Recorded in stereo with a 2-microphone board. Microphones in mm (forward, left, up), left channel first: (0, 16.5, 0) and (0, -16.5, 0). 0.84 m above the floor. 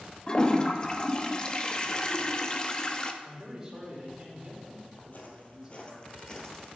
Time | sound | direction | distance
0.3 | a toilet flushing | 25° left (ahead or behind) | 0.5 m
3.2 | a man speaking | 20° right (ahead or behind) | 3 m
5.0 | footsteps | 55° left (ahead or behind) | 1.3 m